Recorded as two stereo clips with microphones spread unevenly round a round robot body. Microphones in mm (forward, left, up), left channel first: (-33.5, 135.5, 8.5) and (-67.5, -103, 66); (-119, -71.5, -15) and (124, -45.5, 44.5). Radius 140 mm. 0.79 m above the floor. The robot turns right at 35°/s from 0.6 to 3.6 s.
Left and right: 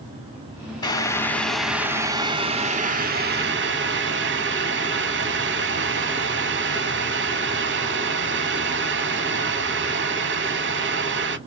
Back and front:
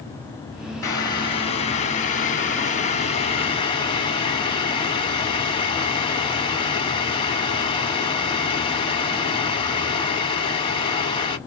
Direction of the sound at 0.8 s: 130° left.